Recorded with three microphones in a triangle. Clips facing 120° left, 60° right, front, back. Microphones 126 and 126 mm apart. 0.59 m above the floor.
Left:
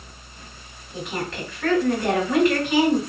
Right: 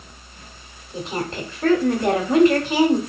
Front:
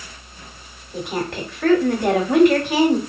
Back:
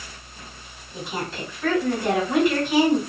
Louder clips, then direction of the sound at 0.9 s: Right 2 dB, front 5 dB; 5° right.